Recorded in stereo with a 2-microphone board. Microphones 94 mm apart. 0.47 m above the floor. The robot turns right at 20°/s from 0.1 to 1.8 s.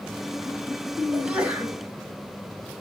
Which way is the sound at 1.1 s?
5° right (ahead or behind).